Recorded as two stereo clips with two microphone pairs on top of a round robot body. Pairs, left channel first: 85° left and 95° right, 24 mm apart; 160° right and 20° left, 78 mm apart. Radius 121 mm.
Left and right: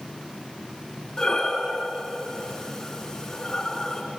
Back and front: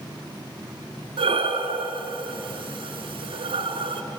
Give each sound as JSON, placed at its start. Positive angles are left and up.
{"t": 1.2, "sound": "breathing", "azimuth_deg": 20, "distance_m": 1.3}